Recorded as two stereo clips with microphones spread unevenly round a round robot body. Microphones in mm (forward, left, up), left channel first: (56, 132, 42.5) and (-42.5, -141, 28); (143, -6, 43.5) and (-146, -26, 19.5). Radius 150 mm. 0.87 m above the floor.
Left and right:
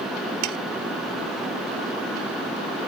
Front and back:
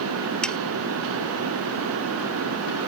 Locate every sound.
0.4 s sawing: 85° right